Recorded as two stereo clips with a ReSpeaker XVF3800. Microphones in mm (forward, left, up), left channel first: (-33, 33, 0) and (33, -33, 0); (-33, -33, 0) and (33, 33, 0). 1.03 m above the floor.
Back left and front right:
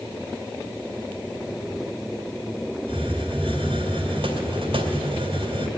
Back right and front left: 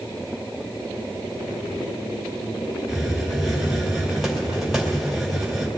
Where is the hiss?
40° right, 2 m.